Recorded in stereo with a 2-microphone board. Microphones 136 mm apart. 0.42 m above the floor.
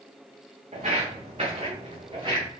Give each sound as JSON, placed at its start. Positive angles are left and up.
{"t": 0.7, "sound": "footsteps", "side_deg": -55, "distance_m": 2.5}